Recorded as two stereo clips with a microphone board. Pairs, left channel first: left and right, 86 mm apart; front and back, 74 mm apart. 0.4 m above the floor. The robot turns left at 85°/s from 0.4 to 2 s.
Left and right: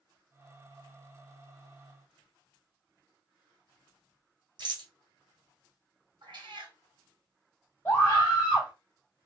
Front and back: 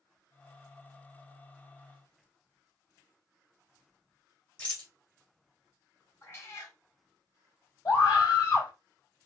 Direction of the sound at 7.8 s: 25° left.